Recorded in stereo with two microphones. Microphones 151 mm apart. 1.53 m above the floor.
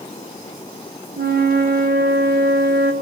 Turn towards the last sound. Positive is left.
turn(degrees=-75)  # may be behind; listen again after turning